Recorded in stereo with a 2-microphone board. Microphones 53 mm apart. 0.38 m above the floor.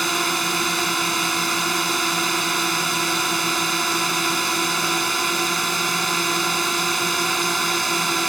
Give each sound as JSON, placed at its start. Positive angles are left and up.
{"t": 0.0, "sound": "a drone", "side_deg": 0}